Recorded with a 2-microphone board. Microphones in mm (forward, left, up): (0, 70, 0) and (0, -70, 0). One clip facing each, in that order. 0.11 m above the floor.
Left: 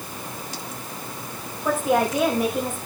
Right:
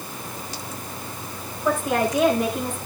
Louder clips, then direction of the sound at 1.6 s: Left 1 dB; 5° left (ahead or behind).